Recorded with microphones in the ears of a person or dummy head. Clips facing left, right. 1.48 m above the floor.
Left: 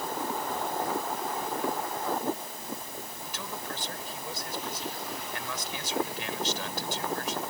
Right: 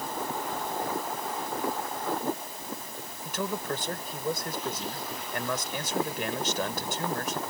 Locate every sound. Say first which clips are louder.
3.2 s a man speaking: right 10 dB; 50° right (ahead or behind)